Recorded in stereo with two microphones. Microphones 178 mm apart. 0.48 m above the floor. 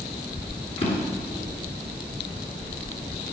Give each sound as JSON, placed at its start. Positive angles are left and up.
{"t": 0.8, "sound": "a drawer", "side_deg": 30, "distance_m": 2.5}